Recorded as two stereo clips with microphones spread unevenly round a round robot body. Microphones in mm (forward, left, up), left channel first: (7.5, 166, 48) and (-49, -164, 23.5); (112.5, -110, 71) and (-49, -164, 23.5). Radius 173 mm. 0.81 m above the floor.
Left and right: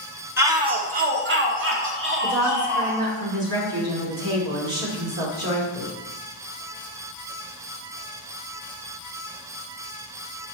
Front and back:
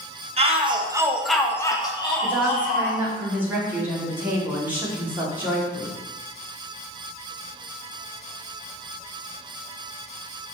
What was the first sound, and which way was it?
A shout, 175° right.